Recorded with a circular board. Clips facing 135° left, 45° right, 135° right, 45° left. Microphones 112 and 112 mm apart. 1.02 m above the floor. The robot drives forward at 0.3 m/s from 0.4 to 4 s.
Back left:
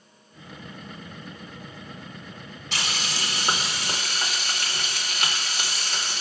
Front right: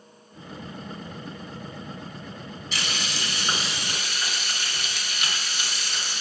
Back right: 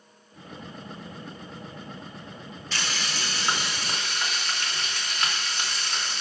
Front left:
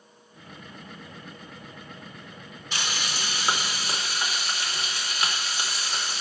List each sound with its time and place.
2.7 s frying: 120° left, 2.5 m; by 6.2 s 125° left, 3 m